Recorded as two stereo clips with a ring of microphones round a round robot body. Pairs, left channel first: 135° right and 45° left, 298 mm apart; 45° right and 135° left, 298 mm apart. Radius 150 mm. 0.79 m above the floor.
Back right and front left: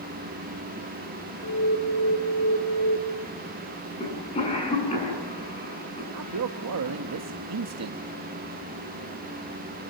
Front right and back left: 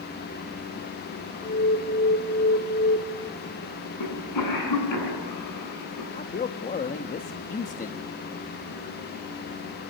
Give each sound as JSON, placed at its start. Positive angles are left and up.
{"t": 1.4, "sound": "an alarm", "azimuth_deg": -105, "distance_m": 3.0}
{"t": 4.0, "sound": "a cough", "azimuth_deg": -65, "distance_m": 9.0}
{"t": 6.1, "sound": "a man speaking", "azimuth_deg": 15, "distance_m": 0.9}